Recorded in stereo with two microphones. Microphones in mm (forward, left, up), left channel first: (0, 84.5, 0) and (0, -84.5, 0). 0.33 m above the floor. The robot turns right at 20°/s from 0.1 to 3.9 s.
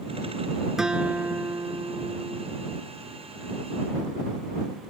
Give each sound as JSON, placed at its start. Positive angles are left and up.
{"t": 0.8, "sound": "a guitar", "azimuth_deg": -175}